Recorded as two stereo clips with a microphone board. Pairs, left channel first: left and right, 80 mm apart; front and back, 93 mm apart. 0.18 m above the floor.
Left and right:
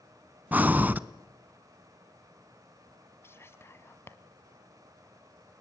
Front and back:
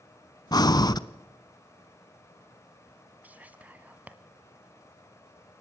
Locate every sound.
0.5 s breathing: 25° right, 0.6 m
3.2 s whispering: 115° left, 1.2 m